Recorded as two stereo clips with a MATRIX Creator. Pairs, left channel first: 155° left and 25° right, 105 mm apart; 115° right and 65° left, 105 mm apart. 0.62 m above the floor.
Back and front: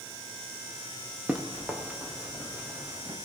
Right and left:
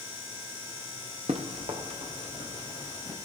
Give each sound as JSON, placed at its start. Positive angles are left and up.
{"t": 1.3, "sound": "running footsteps", "azimuth_deg": 60, "distance_m": 4.0}